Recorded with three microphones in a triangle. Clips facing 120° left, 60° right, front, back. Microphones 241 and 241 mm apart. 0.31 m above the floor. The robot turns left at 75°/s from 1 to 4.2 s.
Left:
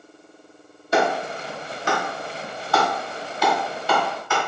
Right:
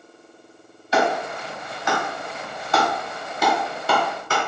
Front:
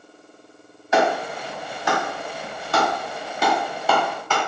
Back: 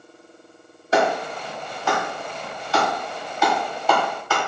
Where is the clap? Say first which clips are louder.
Even, even; 135° left, 1.3 m; by 4.4 s 105° right, 1.3 m.